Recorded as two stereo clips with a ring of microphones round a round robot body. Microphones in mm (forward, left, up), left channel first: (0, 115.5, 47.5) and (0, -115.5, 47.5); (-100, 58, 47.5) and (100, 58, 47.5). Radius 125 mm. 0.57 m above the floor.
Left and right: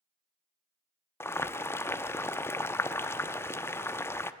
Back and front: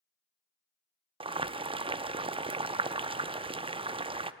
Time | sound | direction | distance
1.2 | boiling | 25° left | 0.6 m